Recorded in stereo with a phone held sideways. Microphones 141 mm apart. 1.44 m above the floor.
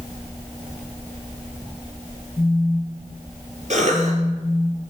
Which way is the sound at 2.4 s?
50° left (ahead or behind).